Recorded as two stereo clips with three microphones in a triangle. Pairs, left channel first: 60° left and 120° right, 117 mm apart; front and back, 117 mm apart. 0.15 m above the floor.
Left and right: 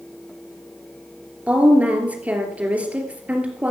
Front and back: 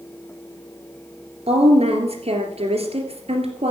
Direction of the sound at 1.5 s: 165° left.